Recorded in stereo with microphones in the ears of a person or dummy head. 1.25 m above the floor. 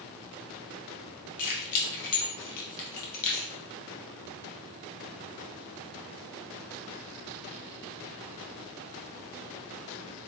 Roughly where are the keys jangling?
Left.